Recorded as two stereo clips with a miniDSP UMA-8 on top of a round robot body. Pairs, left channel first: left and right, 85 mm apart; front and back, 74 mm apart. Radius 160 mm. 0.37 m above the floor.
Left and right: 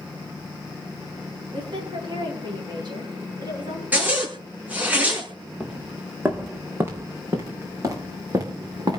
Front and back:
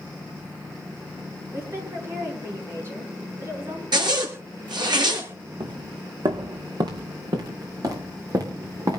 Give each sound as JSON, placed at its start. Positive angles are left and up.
{"t": 1.5, "sound": "a woman speaking", "azimuth_deg": -125, "distance_m": 8.5}
{"t": 3.9, "sound": "a zipper", "azimuth_deg": -165, "distance_m": 7.0}
{"t": 5.6, "sound": "footsteps", "azimuth_deg": -170, "distance_m": 2.5}